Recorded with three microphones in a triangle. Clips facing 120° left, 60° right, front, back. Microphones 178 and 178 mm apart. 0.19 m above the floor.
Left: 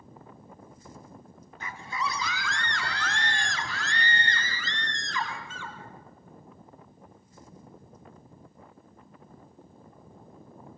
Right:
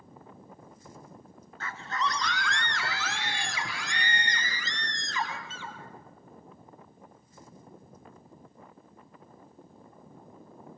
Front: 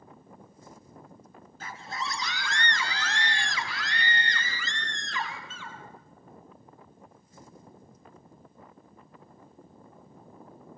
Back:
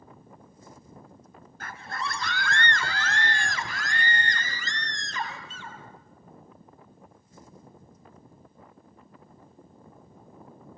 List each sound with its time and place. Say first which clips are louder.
1.6 s a scream: right 1 dB, back 1 dB; 170° right, 2 m; by 5.8 s 130° right, 5 m